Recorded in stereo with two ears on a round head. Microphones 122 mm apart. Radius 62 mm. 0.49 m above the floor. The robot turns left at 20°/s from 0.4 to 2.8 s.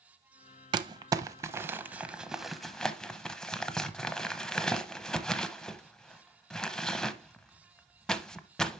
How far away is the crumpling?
About 0.6 m.